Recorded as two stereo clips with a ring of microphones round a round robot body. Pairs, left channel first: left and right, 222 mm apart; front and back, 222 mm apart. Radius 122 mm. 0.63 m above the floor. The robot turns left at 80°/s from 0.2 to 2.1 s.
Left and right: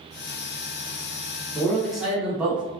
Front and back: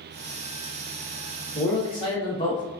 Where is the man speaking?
30° left, 0.9 m; by 2.6 s 15° right, 0.9 m.